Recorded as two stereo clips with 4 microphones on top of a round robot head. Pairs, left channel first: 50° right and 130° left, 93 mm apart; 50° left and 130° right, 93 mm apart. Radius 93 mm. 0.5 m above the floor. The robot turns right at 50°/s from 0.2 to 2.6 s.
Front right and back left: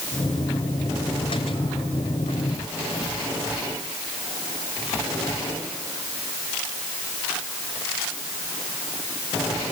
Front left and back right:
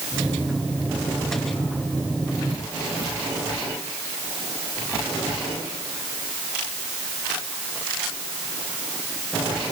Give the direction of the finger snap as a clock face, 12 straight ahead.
I don't hear a finger snap.